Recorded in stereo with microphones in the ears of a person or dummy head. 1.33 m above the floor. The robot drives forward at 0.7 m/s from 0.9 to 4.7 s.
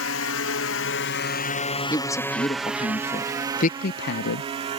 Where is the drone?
75° left (ahead or behind); by 4.8 s 35° right (ahead or behind).